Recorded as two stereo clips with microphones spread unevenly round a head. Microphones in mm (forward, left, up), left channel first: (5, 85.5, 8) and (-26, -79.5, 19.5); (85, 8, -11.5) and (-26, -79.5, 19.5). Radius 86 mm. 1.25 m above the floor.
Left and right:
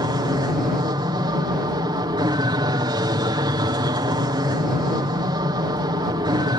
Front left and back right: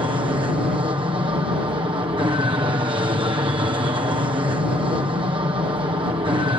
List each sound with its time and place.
0.0 s an aircraft: 125° right